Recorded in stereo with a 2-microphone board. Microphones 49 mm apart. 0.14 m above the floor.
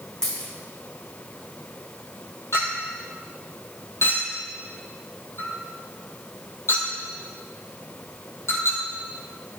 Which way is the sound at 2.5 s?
60° left (ahead or behind).